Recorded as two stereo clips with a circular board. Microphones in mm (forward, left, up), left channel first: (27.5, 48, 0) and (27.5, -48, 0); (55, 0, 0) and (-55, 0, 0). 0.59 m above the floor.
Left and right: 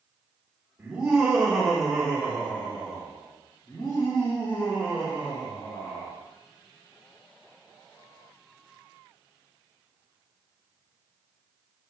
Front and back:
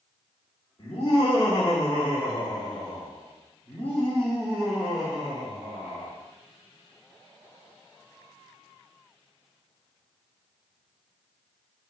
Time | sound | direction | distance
0.8 | laughter | 15° right | 1.9 m